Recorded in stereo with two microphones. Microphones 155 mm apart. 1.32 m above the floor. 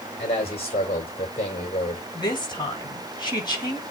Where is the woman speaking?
30° left (ahead or behind), 8 m.